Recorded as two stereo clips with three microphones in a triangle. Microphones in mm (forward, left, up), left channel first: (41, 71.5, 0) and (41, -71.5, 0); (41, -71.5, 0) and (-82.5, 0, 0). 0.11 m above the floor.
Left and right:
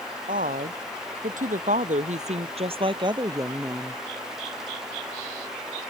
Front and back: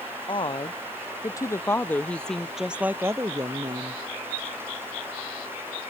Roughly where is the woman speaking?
Right.